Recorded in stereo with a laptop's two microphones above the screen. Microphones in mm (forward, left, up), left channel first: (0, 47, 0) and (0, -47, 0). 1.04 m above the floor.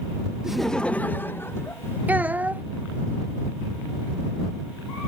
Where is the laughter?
5° right (ahead or behind); by 2.0 s 30° left (ahead or behind).